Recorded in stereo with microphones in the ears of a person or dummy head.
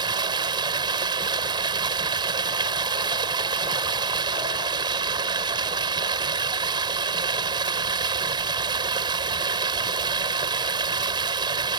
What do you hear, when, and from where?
0.0 s running water: 25° right (ahead or behind)